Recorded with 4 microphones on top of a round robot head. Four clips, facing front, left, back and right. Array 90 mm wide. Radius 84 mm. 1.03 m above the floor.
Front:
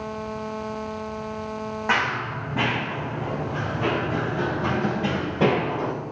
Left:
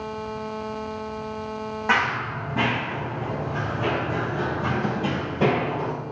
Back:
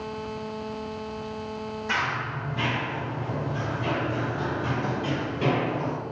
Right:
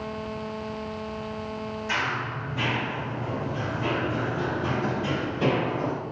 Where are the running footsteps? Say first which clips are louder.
Left 6 dB, front 4 dB; 45° left, 3 m; by 5.9 s 25° left, 4.5 m.